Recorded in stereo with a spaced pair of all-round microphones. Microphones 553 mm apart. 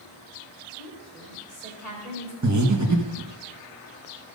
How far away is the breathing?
About 1.1 m.